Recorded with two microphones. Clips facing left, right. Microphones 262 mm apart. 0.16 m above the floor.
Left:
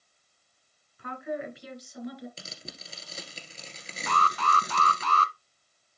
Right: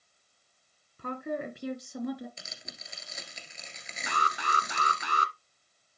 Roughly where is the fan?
I don't hear a fan.